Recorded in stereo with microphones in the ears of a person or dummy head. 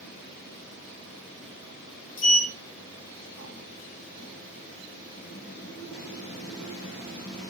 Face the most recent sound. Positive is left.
turn(degrees=80)